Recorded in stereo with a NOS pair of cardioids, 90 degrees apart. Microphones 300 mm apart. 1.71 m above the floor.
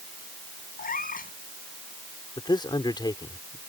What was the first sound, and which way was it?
A cat meowing, 30° left.